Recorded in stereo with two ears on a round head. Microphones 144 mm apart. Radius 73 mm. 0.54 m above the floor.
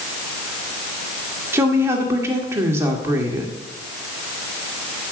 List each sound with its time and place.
1.5 s a woman speaking: 15° right (ahead or behind), 1.7 m